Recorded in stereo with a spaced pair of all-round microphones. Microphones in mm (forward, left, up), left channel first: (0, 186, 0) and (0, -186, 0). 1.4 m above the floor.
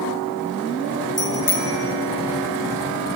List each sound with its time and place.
1.2 s a bicycle bell: 70° left (ahead or behind), 4.5 m